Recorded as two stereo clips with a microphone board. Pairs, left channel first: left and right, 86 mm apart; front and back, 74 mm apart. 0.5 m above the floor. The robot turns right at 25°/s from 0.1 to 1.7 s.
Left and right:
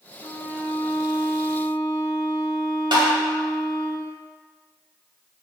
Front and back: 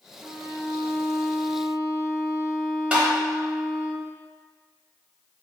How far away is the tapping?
About 0.9 m.